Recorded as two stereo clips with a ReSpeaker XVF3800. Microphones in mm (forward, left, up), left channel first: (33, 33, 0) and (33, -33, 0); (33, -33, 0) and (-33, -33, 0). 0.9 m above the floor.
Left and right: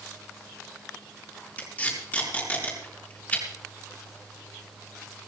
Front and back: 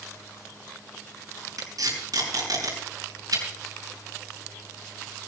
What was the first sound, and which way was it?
Tape being pulled, 155° left.